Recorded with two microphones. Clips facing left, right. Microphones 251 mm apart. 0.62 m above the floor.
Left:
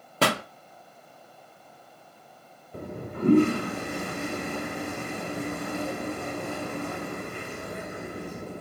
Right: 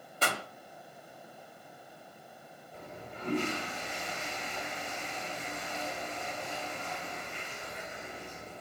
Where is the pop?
75° left (ahead or behind), 0.9 m.